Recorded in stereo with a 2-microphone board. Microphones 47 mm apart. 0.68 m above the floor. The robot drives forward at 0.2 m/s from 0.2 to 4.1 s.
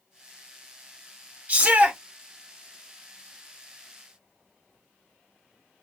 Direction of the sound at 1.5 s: 35° right (ahead or behind).